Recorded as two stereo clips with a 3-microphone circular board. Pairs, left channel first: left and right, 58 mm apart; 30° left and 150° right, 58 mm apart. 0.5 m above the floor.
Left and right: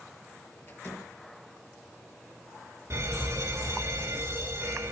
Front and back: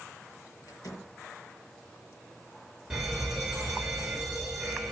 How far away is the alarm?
About 2.5 m.